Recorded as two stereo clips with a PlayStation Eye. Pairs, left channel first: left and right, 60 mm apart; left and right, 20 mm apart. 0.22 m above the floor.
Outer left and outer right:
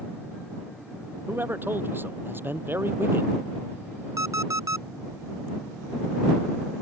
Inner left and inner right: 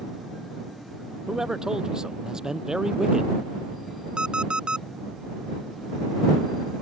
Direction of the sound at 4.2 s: 65° right (ahead or behind).